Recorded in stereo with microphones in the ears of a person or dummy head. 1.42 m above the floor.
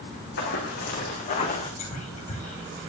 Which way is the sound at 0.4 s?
55° left (ahead or behind).